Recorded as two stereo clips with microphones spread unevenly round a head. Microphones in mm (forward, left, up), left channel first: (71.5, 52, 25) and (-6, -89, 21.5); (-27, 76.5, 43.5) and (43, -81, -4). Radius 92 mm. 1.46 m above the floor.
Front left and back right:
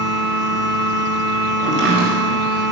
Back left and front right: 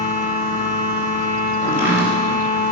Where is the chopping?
150° right, 5 m.